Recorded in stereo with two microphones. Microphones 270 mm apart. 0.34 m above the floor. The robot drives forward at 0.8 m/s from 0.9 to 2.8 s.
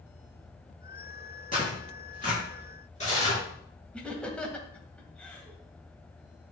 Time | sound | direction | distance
1.5 | tearing paper | 30° left (ahead or behind) | 5 m
3.9 | laughter | 5° left (ahead or behind) | 1.5 m